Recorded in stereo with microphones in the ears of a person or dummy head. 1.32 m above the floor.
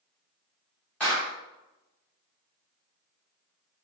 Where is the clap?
15° left (ahead or behind), 1.7 m.